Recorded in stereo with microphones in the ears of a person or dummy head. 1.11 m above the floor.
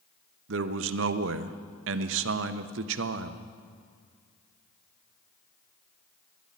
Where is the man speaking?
75° right (ahead or behind), 0.7 m.